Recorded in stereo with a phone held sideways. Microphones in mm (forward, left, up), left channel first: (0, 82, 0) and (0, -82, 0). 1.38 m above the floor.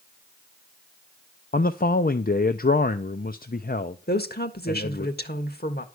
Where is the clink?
No clink in this recording.